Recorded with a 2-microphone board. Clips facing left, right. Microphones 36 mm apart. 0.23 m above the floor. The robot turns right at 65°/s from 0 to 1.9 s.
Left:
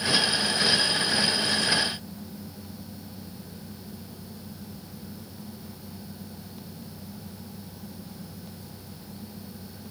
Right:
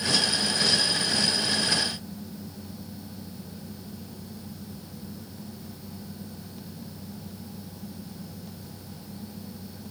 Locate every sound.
Only background noise.